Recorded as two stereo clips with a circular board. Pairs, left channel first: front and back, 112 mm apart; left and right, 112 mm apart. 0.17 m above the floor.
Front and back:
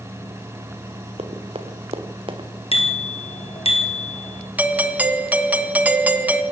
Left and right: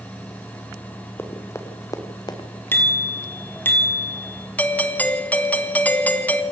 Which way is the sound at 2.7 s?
20° left.